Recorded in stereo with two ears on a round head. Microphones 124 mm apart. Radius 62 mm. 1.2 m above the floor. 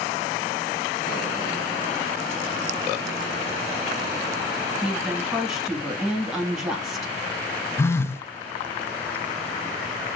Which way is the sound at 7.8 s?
15° left (ahead or behind).